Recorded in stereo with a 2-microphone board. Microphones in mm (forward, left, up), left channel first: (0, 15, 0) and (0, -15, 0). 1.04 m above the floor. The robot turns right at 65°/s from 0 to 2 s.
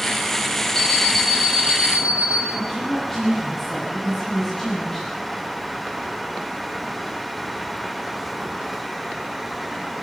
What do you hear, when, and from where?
0.8 s an alarm clock: 160° left, 5.5 m; by 2.5 s 120° right, 5.5 m
2.5 s a woman speaking: 15° left (ahead or behind), 8 m